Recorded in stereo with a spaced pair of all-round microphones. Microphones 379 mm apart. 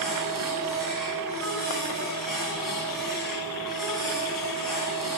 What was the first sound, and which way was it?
A machine running, 60° left (ahead or behind).